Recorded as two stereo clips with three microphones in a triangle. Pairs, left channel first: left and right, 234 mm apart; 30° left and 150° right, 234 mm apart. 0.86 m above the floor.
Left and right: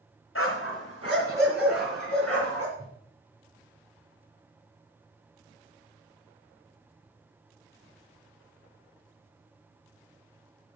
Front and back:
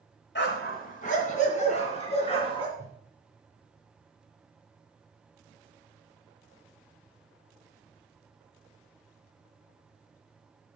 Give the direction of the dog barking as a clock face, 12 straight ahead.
10 o'clock.